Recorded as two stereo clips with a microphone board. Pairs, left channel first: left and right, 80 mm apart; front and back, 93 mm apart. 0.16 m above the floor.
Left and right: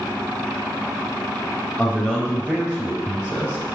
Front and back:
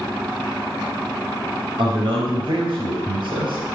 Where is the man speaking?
165° right, 3.5 m.